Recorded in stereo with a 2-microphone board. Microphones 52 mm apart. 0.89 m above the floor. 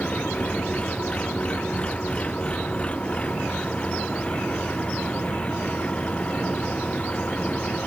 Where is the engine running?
25° left (ahead or behind).